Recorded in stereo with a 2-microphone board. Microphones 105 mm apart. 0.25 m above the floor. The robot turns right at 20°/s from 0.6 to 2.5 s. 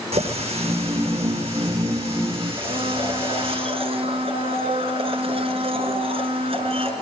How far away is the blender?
About 3.5 m.